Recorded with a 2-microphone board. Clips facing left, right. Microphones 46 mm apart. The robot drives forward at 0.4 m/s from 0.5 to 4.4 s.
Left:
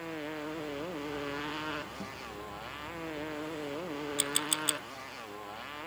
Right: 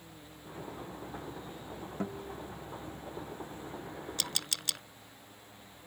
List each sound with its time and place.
0.0 s a motorcycle: 75° left (ahead or behind); by 5.9 s 80° left
2.0 s a guitar: 35° right (ahead or behind); by 2.4 s 30° right (ahead or behind)
4.2 s a camera shutter: 20° left (ahead or behind)